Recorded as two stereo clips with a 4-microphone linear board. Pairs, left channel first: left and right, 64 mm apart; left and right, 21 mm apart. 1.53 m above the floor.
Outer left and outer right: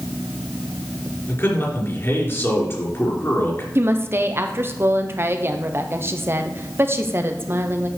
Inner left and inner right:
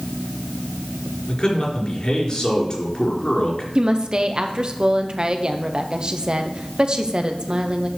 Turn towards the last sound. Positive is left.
turn(degrees=-40)  # may be behind; listen again after turning